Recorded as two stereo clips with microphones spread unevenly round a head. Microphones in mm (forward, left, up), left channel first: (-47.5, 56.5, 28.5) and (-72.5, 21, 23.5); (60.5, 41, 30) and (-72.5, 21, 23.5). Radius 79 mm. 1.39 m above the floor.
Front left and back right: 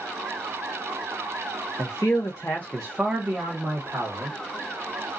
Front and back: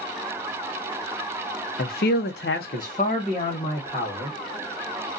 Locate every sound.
1.8 s a man speaking: 20° left, 0.6 m; by 4.4 s 65° right, 1.2 m